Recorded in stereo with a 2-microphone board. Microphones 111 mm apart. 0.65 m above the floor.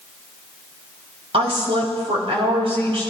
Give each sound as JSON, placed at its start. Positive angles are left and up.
{"t": 1.3, "sound": "a woman speaking", "side_deg": -65, "distance_m": 4.0}